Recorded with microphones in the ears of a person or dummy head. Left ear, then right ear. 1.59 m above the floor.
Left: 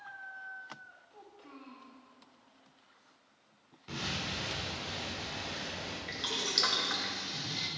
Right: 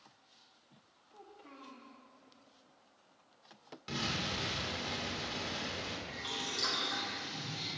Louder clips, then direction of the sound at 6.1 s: Left 9 dB; 55° left (ahead or behind).